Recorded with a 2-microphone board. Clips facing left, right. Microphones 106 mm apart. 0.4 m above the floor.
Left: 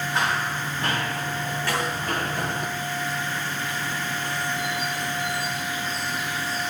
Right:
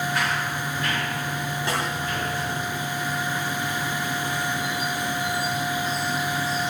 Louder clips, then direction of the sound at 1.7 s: Left 1 dB; 25° right (ahead or behind).